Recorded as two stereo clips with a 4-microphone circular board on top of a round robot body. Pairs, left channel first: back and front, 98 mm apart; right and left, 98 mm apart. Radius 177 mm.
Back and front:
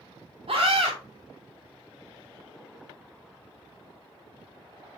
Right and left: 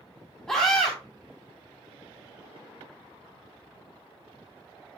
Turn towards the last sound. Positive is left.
turn(degrees=-15)